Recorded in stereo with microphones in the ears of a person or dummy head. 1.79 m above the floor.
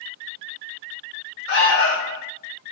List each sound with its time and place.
1.5 s an alarm: 65° left (ahead or behind), 1.2 m